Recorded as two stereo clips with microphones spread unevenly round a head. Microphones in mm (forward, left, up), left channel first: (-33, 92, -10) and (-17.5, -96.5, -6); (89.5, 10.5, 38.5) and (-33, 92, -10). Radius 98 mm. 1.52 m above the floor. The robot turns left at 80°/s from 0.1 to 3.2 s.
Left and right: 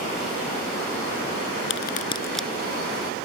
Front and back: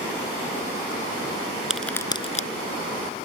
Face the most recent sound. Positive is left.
turn(degrees=-60)